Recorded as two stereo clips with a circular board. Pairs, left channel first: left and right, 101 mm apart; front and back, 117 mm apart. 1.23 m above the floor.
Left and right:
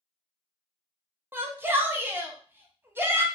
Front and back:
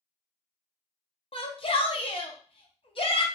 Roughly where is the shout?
Ahead right.